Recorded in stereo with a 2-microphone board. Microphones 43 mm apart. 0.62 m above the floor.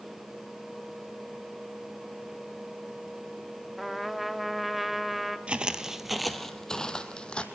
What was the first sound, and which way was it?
A trumpet, centre (ahead or behind).